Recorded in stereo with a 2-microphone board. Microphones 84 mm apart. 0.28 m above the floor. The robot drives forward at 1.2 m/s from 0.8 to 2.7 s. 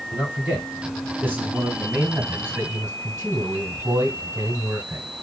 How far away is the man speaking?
About 3.5 m.